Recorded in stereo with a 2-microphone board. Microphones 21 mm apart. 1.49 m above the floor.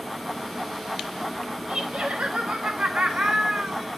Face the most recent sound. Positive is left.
turn(degrees=-40)  # may be behind; listen again after turning